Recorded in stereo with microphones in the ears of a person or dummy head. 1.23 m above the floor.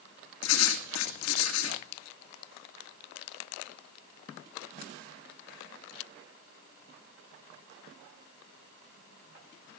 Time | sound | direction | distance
0.4 | writing | 80° left | 2 m